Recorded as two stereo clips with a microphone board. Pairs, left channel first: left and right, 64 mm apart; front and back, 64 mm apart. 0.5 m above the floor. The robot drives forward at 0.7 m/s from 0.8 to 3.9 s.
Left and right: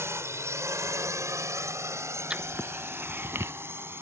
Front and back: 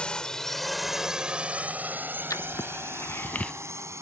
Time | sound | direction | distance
0.0 | a drone | 70° right | ?
2.3 | writing | 20° right | ?